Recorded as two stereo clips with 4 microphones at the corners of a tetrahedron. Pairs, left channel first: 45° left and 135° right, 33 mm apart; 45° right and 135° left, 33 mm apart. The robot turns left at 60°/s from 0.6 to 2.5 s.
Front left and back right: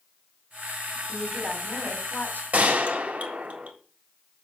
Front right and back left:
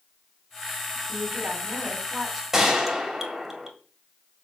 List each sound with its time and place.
1.1 s a woman speaking: 120° left, 2.5 m; by 2.4 s 40° left, 2.5 m
2.5 s a gunshot: 145° right, 1.7 m